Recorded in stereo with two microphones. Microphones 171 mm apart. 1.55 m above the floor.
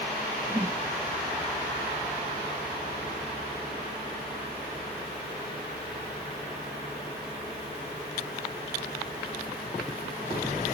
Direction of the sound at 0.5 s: 25° right (ahead or behind).